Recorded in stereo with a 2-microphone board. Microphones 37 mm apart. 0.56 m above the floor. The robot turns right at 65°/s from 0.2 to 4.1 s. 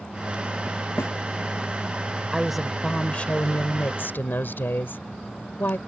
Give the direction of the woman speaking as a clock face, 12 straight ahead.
1 o'clock.